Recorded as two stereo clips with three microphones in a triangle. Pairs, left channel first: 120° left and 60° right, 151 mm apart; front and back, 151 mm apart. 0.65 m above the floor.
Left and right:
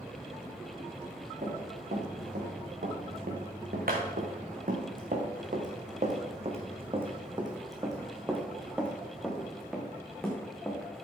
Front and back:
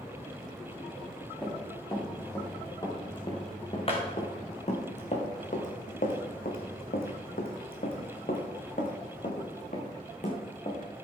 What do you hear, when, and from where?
1.4 s running footsteps: 70° right, 4.5 m; by 11.1 s 40° left, 4 m